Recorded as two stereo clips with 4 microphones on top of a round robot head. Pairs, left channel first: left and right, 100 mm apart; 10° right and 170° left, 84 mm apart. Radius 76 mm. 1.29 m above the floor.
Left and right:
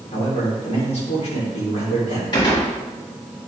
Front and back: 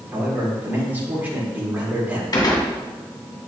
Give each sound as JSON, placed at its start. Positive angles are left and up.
{"t": 0.1, "sound": "a man speaking", "azimuth_deg": 105, "distance_m": 3.5}
{"t": 2.3, "sound": "a gunshot", "azimuth_deg": 35, "distance_m": 2.0}